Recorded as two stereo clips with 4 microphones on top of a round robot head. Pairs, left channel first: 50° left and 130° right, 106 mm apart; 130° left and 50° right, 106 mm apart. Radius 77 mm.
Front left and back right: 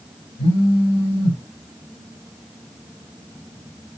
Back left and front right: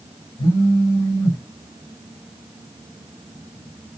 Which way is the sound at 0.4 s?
75° left.